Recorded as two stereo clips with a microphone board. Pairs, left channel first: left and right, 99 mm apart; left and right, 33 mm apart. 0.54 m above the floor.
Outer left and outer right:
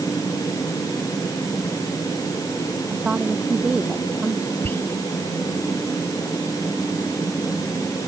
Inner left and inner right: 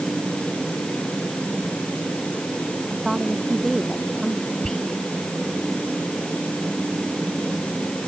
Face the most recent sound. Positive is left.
turn(degrees=20)  # may be behind; listen again after turning